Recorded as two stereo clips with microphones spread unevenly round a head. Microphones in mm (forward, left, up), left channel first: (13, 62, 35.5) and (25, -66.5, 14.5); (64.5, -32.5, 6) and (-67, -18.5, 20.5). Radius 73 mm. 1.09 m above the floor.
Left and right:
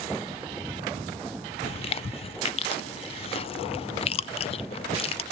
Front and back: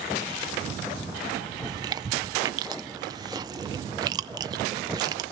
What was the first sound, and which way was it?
Chewing, 120° left.